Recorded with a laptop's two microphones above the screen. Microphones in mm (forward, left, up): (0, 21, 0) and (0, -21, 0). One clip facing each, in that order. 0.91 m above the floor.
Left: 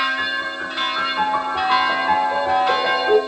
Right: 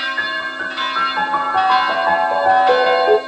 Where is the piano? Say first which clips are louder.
Right 2 dB; 65° right (ahead or behind), 4 m.